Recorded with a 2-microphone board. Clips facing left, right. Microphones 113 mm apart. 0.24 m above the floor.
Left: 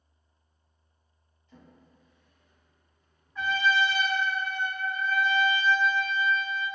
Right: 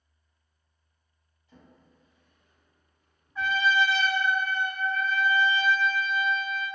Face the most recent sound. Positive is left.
turn(degrees=-10)  # may be behind; listen again after turning